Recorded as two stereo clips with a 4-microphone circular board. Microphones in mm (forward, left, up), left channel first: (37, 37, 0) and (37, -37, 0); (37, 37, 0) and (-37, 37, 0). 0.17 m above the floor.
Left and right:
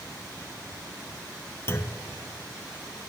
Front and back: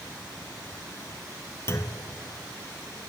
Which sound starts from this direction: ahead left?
A clunk, at 1.7 s.